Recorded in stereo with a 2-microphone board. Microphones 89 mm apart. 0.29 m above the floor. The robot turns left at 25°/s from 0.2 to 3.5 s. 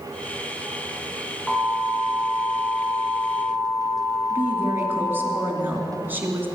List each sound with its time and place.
1.5 s an alarm: 175° right, 4.5 m; by 5.3 s 135° left, 4.5 m
4.3 s a woman speaking: 20° right (ahead or behind), 2.5 m